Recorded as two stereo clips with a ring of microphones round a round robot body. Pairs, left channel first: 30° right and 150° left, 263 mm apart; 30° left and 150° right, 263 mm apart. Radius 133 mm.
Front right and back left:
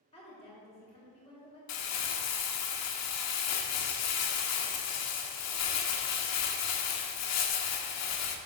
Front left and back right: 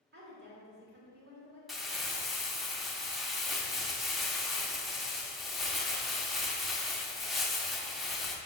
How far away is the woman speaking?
About 2.5 m.